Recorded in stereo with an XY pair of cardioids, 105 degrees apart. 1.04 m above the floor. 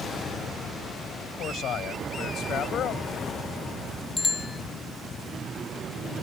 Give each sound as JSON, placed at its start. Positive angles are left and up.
{"t": 1.2, "sound": "a man speaking", "azimuth_deg": 70}
{"t": 4.2, "sound": "a bicycle bell", "azimuth_deg": 25}